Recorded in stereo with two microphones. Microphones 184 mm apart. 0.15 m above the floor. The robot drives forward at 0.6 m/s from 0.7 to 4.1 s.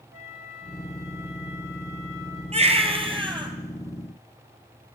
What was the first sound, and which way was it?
A flute, 85° right.